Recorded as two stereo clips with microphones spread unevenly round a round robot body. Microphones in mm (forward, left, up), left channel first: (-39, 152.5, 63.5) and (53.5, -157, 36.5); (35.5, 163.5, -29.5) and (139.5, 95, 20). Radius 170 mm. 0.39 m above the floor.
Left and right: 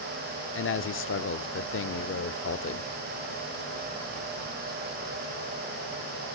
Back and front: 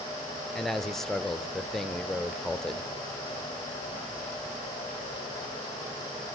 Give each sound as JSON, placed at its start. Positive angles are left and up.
{"t": 0.6, "sound": "a man speaking", "azimuth_deg": 105, "distance_m": 0.9}